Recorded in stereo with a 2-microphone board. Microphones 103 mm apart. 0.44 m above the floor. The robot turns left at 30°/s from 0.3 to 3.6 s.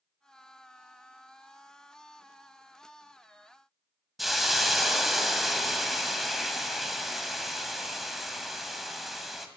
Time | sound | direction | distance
4.2 | a hiss | centre (ahead or behind) | 0.5 m